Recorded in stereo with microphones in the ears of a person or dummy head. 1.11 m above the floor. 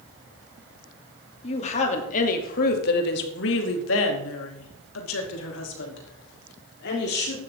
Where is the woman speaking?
35° left (ahead or behind), 3 m; by 7.4 s 55° left (ahead or behind), 4 m.